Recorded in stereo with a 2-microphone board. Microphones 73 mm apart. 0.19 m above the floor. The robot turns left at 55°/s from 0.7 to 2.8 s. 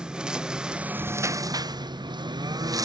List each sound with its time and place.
0.0 s a lawn mower: 10° right; by 2.9 s 125° right